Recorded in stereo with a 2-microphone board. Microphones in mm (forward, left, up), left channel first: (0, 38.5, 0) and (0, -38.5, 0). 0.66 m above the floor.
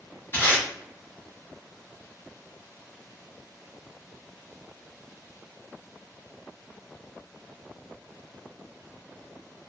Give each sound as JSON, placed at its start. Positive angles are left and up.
{"t": 0.3, "sound": "tape being pulled", "side_deg": 30, "distance_m": 1.4}